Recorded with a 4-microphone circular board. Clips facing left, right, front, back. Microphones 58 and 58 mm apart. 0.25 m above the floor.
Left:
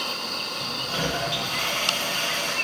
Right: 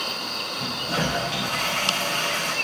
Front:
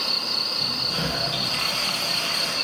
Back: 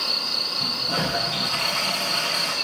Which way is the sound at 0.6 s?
160° right.